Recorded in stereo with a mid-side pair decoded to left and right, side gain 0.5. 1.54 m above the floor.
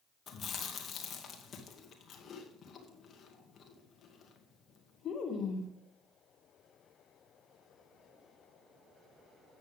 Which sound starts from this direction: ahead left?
Chewing, at 0.3 s.